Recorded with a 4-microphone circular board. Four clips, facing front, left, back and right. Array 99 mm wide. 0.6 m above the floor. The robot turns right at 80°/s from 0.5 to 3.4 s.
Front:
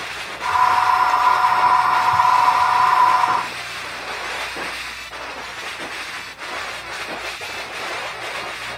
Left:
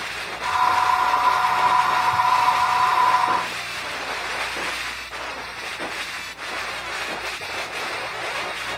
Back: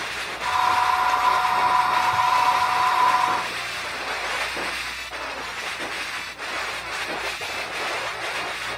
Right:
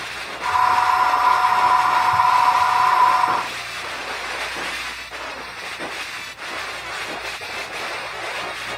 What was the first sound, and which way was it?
Only background noise.